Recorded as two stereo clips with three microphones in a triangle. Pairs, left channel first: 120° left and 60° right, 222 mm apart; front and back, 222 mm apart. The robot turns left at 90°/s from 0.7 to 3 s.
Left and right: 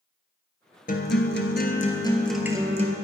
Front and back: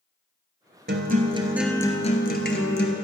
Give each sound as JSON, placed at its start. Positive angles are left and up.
{"t": 0.9, "sound": "a guitar", "azimuth_deg": 160, "distance_m": 0.9}